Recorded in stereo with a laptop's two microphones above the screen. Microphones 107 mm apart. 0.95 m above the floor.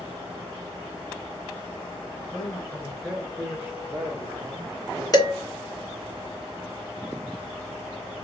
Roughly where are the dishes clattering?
Left.